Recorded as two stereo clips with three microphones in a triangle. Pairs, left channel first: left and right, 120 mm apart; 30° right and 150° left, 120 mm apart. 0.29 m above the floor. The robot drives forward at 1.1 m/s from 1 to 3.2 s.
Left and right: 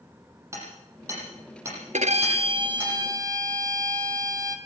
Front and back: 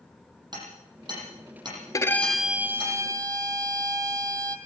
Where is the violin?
90° right, 0.8 m; by 4.6 s 150° right, 1.6 m.